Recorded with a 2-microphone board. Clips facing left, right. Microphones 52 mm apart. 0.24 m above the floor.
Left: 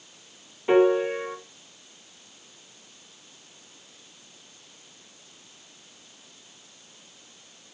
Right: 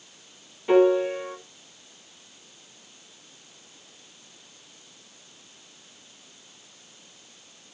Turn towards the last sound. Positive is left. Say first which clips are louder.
# right 1 dB
turn(degrees=20)  # may be behind; listen again after turning